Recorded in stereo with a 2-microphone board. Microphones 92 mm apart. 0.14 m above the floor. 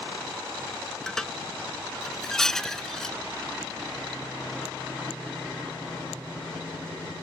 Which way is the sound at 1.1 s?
5° left (ahead or behind).